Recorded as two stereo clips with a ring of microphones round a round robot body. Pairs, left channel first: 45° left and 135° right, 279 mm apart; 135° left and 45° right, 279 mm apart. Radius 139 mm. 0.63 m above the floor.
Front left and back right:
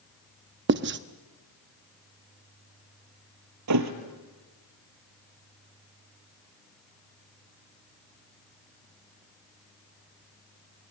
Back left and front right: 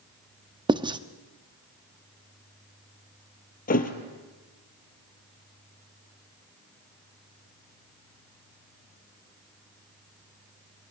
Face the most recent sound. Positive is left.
turn(degrees=-165)